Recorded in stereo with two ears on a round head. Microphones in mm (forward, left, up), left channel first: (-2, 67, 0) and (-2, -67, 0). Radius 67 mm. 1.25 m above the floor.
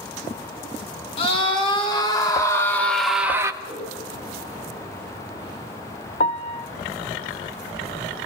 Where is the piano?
45° left (ahead or behind), 0.5 m.